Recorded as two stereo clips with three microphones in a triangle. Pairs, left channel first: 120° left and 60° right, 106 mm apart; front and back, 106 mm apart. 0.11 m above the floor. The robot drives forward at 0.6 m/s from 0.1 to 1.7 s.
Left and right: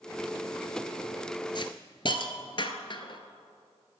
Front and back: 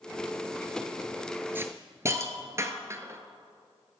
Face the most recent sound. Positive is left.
turn(degrees=125)